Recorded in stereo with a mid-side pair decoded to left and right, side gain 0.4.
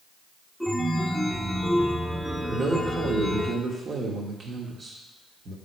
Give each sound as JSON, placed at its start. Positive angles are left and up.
{"t": 0.6, "sound": "a chime", "azimuth_deg": -10, "distance_m": 1.2}
{"t": 2.5, "sound": "a man speaking", "azimuth_deg": -45, "distance_m": 2.0}